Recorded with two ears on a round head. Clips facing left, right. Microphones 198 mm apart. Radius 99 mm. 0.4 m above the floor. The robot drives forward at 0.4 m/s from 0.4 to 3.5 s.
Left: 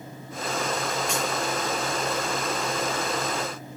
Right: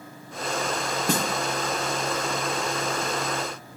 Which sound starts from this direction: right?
A snare drum, at 1.1 s.